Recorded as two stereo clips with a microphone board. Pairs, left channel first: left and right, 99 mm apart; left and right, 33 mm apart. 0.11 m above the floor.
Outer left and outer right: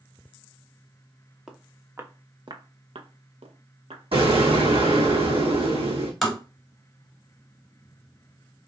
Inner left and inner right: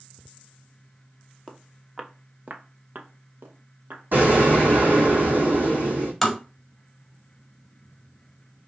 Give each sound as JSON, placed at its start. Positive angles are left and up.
{"t": 1.5, "sound": "footsteps", "side_deg": -5, "distance_m": 0.8}
{"t": 4.1, "sound": "an explosion", "side_deg": -70, "distance_m": 2.0}
{"t": 6.2, "sound": "tapping", "side_deg": 5, "distance_m": 1.6}